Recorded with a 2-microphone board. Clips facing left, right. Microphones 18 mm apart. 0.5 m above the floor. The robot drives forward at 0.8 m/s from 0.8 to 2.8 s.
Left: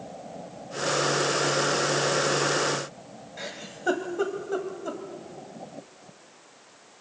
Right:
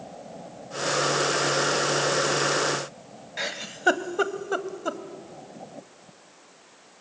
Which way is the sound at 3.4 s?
35° right (ahead or behind).